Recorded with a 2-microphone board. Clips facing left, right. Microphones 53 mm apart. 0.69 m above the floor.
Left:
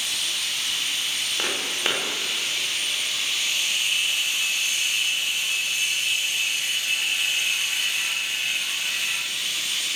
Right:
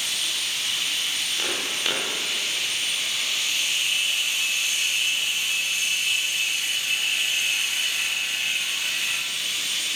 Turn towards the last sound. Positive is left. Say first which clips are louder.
# left 2 dB
turn(degrees=25)  # may be behind; listen again after turning